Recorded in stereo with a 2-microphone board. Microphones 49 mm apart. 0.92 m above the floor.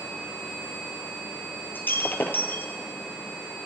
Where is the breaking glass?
40° left (ahead or behind), 1.9 m.